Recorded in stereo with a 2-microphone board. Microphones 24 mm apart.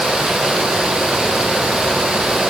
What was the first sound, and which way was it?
Only background noise.